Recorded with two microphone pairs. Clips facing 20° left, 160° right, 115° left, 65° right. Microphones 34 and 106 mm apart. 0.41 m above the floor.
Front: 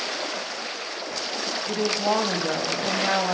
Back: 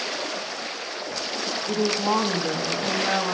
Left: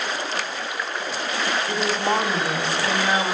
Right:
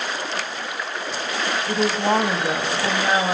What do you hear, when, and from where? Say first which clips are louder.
1.7 s a woman speaking: back 1 dB, right 5 dB; 30° right, 1.6 m